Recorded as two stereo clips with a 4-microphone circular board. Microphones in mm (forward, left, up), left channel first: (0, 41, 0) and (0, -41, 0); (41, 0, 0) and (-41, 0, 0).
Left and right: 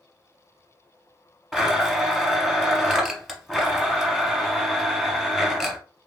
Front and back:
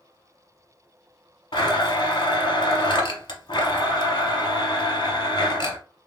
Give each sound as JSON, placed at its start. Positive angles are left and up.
{"t": 1.5, "sound": "a blender", "azimuth_deg": -5, "distance_m": 0.8}